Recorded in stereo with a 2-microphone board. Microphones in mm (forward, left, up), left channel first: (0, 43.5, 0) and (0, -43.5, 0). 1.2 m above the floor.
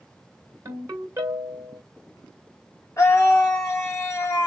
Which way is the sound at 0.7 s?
40° right (ahead or behind).